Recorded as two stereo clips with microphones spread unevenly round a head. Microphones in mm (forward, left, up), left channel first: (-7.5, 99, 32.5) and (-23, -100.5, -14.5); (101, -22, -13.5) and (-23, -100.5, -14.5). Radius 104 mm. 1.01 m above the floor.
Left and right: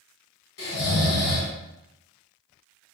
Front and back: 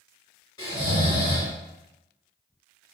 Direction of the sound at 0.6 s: 100° left.